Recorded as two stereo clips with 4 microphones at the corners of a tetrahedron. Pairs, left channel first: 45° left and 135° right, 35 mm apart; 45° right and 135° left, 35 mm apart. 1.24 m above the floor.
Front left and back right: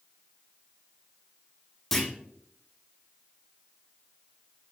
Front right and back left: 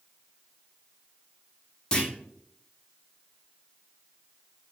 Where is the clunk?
25° right, 0.8 m.